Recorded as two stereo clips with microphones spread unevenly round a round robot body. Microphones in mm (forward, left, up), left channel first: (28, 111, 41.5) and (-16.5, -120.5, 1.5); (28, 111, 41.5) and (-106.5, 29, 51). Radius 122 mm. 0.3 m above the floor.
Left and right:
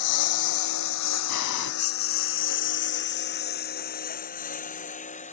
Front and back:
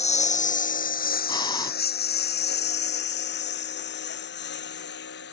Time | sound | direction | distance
0.0 | a lawn mower | 80° left | ?
1.3 | breathing | 95° left | ?